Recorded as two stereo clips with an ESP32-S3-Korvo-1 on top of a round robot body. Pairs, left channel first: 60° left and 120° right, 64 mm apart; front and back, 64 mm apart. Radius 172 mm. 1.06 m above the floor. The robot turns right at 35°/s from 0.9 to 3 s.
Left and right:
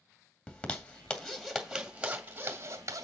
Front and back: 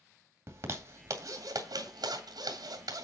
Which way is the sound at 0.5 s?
130° left.